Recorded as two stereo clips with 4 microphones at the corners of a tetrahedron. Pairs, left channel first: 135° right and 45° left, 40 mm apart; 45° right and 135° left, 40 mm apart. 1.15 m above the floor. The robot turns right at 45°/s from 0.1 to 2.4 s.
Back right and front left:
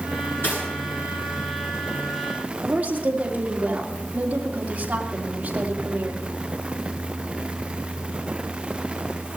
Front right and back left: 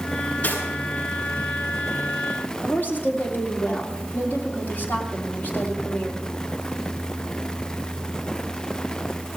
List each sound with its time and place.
0.4 s cutlery clinking: 105° right, 7.5 m; by 0.6 s 95° right, 7.5 m
2.6 s a woman speaking: 10° right, 2.5 m